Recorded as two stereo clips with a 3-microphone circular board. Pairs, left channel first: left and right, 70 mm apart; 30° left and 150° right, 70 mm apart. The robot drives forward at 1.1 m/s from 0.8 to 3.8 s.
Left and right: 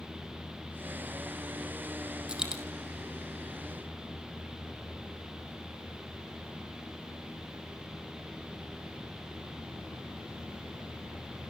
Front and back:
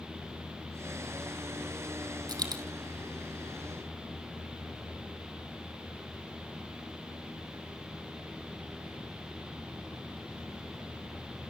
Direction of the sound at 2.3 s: 170° right.